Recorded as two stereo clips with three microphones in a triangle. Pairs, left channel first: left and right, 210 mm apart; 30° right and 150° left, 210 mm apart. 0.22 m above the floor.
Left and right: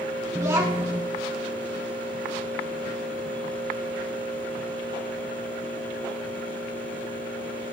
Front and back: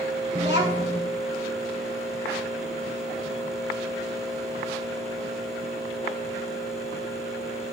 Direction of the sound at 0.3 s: 160° right.